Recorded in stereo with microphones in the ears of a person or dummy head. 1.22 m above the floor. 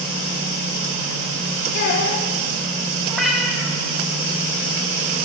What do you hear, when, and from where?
1.7 s a child speaking: 60° left (ahead or behind), 0.9 m
3.1 s a cat meowing: centre (ahead or behind), 0.7 m